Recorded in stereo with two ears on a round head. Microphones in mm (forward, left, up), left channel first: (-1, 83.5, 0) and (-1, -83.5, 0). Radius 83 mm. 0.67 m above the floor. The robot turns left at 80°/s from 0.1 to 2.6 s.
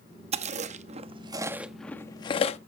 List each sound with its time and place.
0.3 s chewing: 35° right (ahead or behind), 0.7 m; by 2.6 s 35° left (ahead or behind), 0.7 m